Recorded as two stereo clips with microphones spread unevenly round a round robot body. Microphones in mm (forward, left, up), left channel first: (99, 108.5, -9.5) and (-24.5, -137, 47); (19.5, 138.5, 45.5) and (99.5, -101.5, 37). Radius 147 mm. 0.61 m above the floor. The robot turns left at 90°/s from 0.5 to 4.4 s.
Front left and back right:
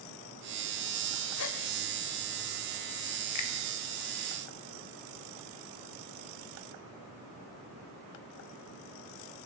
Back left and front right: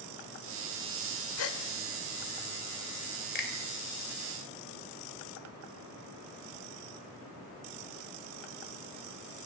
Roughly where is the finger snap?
Ahead left.